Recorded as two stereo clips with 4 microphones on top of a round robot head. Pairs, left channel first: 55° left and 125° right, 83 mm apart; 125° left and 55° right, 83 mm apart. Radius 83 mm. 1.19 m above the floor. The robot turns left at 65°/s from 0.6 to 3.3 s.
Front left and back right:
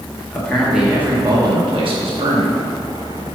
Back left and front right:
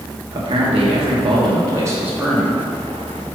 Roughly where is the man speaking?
Ahead right.